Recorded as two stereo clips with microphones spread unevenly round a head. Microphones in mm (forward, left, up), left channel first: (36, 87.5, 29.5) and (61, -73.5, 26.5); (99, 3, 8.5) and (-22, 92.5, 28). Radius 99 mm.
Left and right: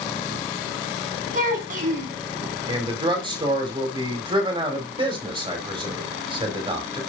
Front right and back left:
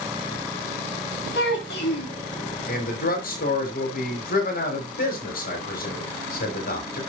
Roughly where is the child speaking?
Ahead right.